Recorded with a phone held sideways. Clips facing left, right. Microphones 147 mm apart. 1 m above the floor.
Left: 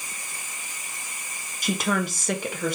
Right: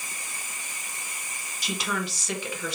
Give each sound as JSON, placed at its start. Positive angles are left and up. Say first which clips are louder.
{"t": 1.6, "sound": "a woman speaking", "louder": "left 6 dB", "side_deg": 50, "distance_m": 0.9}